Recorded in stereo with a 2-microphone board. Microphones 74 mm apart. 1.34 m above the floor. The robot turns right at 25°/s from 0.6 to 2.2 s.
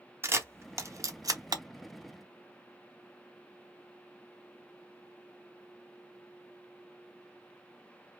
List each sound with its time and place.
0.2 s a camera shutter: 35° right (ahead or behind), 0.7 m; by 1.6 s 60° right (ahead or behind), 0.7 m